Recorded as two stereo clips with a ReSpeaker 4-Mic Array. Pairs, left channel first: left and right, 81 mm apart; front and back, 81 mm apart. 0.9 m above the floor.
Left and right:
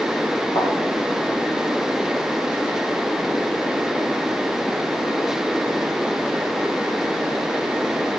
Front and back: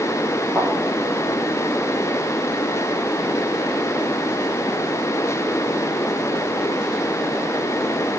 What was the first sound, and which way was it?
A thud, 95° left.